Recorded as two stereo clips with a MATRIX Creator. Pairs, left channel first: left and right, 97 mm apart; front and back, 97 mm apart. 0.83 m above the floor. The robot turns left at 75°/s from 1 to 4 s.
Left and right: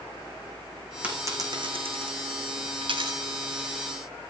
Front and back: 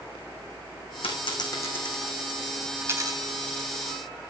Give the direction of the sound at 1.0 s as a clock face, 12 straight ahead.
1 o'clock.